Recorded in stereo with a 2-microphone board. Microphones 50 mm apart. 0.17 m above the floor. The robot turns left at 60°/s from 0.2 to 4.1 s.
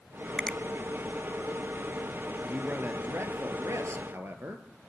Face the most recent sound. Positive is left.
turn(degrees=-120)